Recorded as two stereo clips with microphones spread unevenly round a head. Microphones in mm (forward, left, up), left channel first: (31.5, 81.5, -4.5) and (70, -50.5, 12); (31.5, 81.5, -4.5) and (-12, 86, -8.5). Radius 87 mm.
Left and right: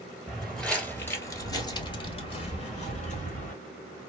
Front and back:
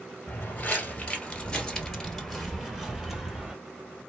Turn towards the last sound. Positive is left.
turn(degrees=95)